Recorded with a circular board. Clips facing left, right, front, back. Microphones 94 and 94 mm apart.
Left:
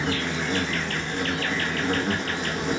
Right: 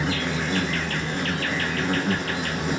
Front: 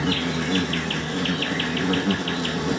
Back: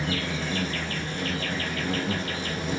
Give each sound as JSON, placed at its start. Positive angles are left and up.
{"t": 0.0, "sound": "an insect", "azimuth_deg": 0, "distance_m": 1.1}